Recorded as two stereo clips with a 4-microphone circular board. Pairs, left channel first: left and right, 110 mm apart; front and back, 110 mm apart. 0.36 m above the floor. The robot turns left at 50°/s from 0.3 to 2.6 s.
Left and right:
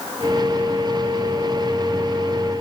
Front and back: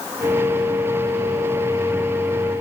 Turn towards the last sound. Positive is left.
No sound to turn to.